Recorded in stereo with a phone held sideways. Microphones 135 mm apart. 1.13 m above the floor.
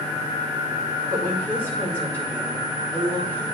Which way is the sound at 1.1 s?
10° left (ahead or behind).